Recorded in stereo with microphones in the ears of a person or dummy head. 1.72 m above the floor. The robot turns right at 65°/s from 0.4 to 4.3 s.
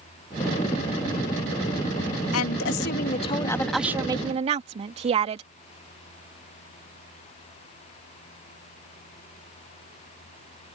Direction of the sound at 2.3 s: 85° left.